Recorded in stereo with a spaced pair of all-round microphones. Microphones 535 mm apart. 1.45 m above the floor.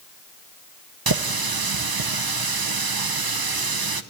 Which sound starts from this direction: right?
A running tap, at 1.1 s.